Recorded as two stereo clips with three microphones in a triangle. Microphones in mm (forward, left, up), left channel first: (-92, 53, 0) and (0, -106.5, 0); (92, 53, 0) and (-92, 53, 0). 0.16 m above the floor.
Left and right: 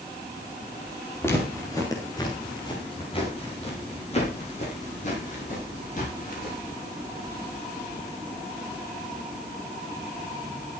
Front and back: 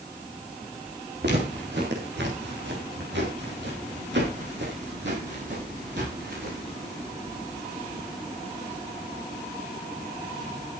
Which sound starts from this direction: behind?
Footsteps, at 1.2 s.